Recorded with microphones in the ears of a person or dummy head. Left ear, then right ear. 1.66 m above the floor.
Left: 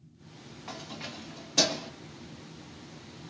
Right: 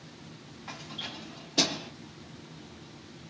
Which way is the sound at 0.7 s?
10° left (ahead or behind).